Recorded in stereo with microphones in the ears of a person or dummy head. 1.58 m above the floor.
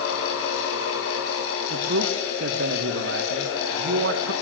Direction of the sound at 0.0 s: 85° left.